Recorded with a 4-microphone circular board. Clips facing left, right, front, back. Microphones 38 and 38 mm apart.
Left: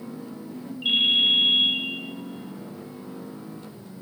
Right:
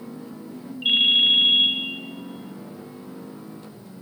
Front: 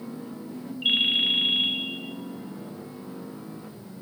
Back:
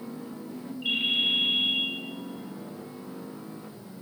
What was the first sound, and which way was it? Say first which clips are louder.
A ringtone: right 2 dB, front 3 dB; 25° right.